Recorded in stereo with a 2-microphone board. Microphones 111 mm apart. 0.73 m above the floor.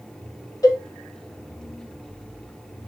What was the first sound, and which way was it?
A cowbell, 35° left (ahead or behind).